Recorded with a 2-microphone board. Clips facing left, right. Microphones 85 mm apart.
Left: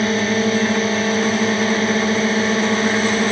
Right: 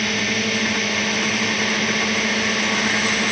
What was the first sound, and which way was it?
A drone, 35° left (ahead or behind).